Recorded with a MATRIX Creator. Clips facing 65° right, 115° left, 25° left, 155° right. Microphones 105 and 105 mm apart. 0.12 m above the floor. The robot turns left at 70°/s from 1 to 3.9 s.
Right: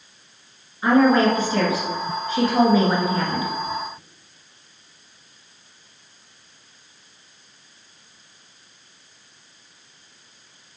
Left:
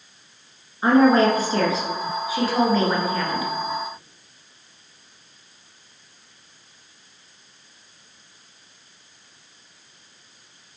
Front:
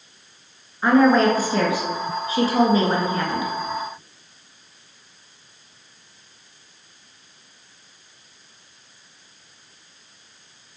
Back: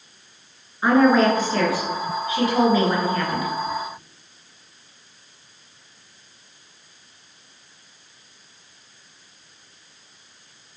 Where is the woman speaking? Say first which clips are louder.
Left 1 dB, even; 130° left, 1.5 m; by 3.5 s 45° right, 1.5 m.